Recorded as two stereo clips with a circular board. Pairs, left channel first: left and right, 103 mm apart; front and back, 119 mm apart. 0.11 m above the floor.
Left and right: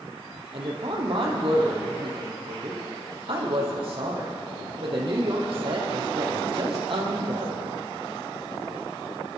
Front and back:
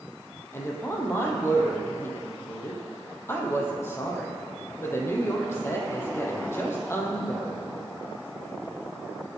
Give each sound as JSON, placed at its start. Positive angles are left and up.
{"t": 0.5, "sound": "a woman speaking", "azimuth_deg": -65, "distance_m": 3.0}